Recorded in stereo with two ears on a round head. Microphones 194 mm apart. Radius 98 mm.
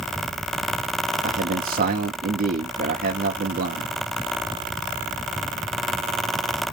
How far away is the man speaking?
About 1.1 m.